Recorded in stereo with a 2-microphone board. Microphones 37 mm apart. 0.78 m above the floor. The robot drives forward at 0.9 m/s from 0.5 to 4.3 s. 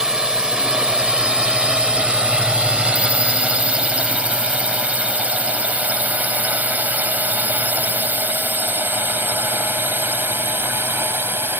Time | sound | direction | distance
0.0 | a drone | 20° right (ahead or behind) | ?